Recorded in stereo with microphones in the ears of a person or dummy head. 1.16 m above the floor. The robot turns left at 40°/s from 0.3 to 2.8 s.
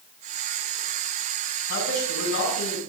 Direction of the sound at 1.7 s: 105° left.